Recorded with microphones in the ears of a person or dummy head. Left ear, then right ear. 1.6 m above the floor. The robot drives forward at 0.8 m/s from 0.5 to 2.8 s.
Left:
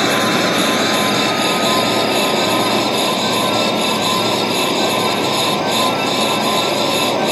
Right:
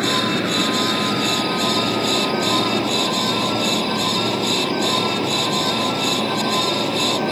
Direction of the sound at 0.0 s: 35° left (ahead or behind).